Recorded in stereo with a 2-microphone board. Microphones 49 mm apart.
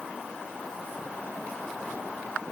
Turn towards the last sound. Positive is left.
No sound to turn to.